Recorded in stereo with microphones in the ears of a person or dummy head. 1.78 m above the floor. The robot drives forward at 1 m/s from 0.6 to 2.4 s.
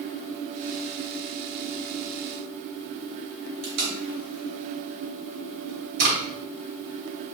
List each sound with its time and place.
3.6 s tape being pulled: 70° right (ahead or behind), 2 m